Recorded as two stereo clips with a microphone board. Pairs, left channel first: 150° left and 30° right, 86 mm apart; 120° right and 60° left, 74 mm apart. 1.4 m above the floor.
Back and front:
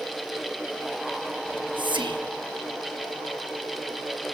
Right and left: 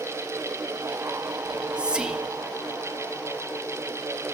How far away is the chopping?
No chopping in this recording.